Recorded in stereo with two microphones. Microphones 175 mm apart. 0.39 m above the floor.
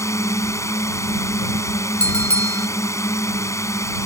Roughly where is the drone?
Centre.